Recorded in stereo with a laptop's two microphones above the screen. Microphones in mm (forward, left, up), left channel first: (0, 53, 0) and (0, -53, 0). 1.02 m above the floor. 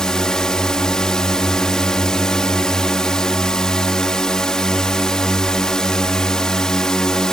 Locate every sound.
0.0 s a drone: 5° left (ahead or behind)